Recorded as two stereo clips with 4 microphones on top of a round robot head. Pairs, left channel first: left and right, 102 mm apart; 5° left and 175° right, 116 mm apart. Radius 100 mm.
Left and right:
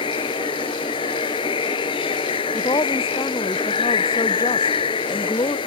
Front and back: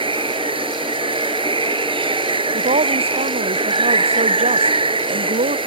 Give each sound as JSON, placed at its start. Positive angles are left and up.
{"t": 0.0, "sound": "running water", "azimuth_deg": 140}
{"t": 2.5, "sound": "a woman speaking", "azimuth_deg": 155}